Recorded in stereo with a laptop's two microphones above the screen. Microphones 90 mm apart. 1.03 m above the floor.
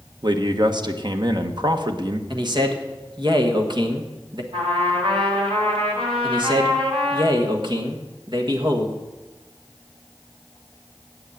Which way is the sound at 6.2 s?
55° right (ahead or behind).